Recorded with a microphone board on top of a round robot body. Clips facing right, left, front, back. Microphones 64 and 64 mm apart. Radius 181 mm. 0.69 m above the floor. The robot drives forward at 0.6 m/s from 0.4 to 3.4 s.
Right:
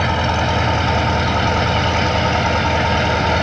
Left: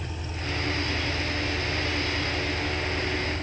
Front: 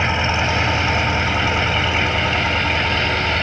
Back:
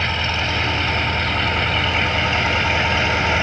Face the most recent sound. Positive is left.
turn(degrees=-100)